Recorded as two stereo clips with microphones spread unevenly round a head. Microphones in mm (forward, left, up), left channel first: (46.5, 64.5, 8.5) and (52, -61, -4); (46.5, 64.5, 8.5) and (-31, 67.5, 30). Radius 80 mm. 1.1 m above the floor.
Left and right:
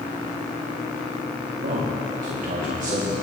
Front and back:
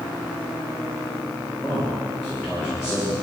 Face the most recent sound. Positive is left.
turn(degrees=-80)